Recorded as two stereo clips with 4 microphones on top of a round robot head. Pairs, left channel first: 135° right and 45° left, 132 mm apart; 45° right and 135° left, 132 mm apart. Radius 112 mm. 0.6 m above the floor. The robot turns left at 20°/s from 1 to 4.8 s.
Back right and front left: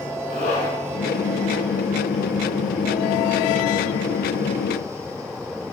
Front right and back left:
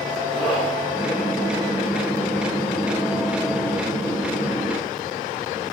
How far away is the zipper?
About 6.5 m.